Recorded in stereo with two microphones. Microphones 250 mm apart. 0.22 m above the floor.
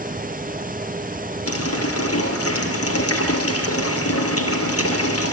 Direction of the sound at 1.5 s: 65° left (ahead or behind).